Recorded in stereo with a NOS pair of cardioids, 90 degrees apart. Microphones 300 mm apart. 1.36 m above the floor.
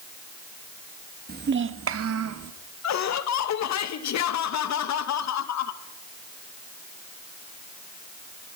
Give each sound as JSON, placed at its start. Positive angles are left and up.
{"t": 1.3, "sound": "a child speaking", "azimuth_deg": -30, "distance_m": 1.3}
{"t": 2.8, "sound": "laughter", "azimuth_deg": 65, "distance_m": 2.0}